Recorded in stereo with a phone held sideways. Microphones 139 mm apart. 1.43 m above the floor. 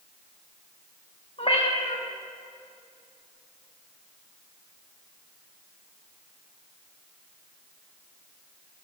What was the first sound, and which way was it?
A cat meowing, 45° left (ahead or behind).